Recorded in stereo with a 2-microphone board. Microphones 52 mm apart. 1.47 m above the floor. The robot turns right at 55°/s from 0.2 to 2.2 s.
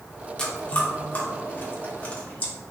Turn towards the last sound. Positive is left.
turn(degrees=25)  # may be behind; listen again after turning